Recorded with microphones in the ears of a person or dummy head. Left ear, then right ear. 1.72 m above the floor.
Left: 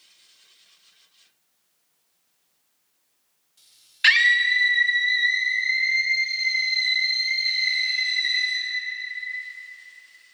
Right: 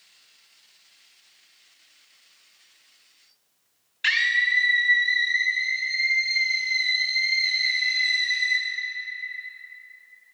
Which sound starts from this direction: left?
A scream, at 4.0 s.